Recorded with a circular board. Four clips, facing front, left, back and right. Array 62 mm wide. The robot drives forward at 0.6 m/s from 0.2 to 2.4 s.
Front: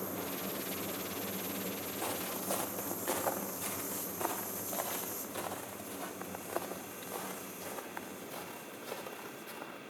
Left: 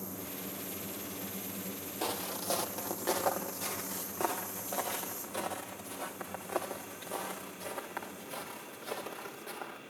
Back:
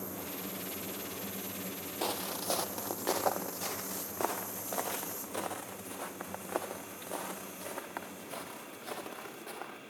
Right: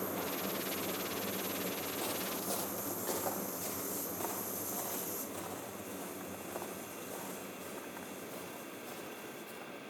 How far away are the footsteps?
About 2.0 m.